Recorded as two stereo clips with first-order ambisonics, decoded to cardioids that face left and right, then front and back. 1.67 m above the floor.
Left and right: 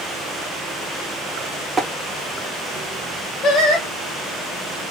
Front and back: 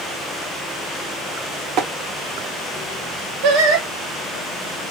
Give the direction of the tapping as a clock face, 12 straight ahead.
5 o'clock.